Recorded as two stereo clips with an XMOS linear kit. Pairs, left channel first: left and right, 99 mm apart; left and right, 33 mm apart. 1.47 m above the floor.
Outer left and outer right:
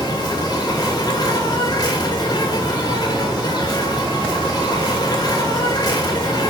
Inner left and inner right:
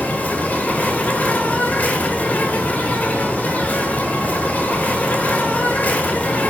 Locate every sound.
0.0 s an insect: 40° left (ahead or behind), 2 m